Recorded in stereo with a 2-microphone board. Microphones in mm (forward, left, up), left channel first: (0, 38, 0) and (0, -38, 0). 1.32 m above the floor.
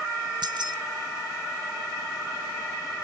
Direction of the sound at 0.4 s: 75° right (ahead or behind).